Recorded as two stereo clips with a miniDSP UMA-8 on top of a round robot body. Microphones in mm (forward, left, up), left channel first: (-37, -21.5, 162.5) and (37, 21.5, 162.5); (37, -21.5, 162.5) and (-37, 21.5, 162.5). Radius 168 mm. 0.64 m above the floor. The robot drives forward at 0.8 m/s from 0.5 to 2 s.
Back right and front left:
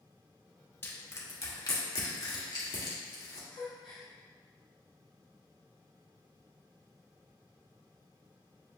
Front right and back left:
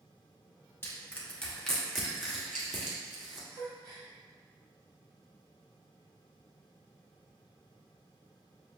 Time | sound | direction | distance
0.8 | crushing | 90° right | 1.5 m
3.5 | a gasp | 170° right | 0.7 m